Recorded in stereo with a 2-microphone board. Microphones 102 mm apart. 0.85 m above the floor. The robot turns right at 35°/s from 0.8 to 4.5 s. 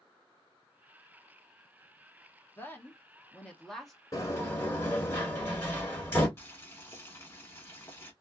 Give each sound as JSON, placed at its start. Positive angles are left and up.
{"t": 2.6, "sound": "a woman speaking", "side_deg": 20, "distance_m": 0.8}
{"t": 4.1, "sound": "a sliding door", "side_deg": 35, "distance_m": 1.6}
{"t": 6.4, "sound": "boiling", "side_deg": 25, "distance_m": 1.1}